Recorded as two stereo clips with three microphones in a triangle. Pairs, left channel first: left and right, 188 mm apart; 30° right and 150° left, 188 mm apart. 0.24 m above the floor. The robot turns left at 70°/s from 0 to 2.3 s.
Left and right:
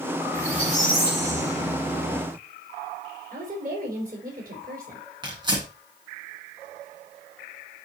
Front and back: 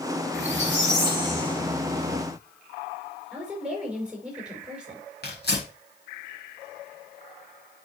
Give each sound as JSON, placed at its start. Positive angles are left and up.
{"t": 0.3, "sound": "a squeak", "azimuth_deg": 165, "distance_m": 2.5}
{"t": 3.3, "sound": "a woman speaking", "azimuth_deg": -125, "distance_m": 5.0}
{"t": 5.2, "sound": "tearing paper", "azimuth_deg": -25, "distance_m": 3.0}